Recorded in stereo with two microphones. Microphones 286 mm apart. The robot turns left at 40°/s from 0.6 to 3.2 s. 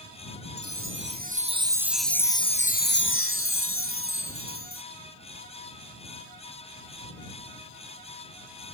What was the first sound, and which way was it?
A chime, 125° right.